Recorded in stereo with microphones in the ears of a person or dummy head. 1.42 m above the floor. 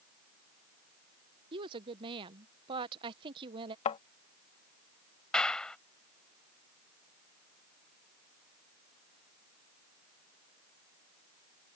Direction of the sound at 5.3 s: 10° left (ahead or behind).